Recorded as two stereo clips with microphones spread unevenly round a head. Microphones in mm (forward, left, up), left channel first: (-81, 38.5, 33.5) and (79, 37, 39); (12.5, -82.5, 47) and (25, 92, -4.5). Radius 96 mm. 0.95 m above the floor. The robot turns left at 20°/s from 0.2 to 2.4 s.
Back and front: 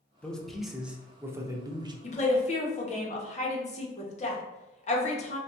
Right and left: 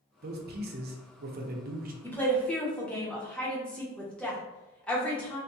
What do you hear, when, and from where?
0.2 s a man speaking: 95° left, 0.7 m; by 1.9 s 65° left, 0.7 m
2.0 s a woman speaking: 175° left, 0.9 m; by 5.4 s 165° left, 0.9 m